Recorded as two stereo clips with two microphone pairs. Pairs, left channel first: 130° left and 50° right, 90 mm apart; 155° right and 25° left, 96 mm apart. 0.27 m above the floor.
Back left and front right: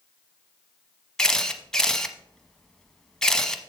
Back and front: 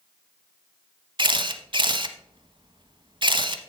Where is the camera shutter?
50° left, 0.9 m.